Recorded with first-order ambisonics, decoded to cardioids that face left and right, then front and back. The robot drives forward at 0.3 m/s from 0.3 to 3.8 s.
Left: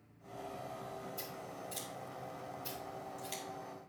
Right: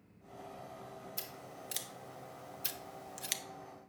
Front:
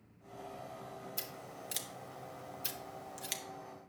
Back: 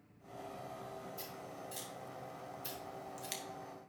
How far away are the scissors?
About 1.0 m.